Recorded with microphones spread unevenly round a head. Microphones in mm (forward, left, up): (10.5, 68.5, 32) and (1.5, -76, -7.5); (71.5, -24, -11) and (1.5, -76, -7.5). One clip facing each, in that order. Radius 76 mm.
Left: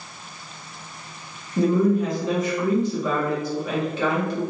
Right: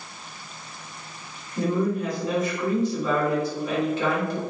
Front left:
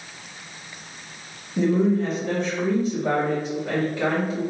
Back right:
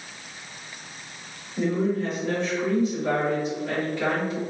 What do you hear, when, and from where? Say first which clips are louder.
1.6 s a woman speaking: left 5 dB, front left 4 dB; 70° left, 1.7 m